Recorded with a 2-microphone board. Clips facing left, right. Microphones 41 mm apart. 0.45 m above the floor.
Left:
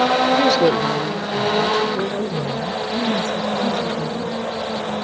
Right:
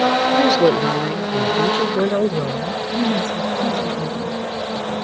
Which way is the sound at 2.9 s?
40° right (ahead or behind).